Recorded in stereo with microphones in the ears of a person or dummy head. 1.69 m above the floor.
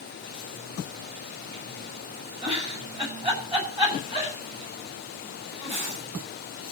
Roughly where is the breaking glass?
I don't hear breaking glass.